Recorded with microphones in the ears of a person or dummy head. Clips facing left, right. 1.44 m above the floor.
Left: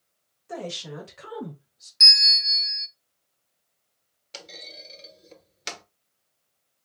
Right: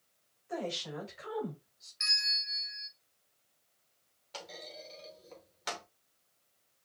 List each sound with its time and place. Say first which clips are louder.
0.5 s a woman speaking: left 3 dB; 65° left (ahead or behind), 3 m; by 1.9 s 75° left (ahead or behind), 2.5 m
2.0 s a bell: left 10 dB; 50° left (ahead or behind), 0.7 m
4.3 s a clunk: left 1 dB; 30° left (ahead or behind), 1.0 m